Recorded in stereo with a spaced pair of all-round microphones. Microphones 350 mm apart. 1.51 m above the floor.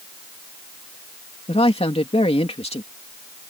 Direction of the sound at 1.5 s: 15° left (ahead or behind).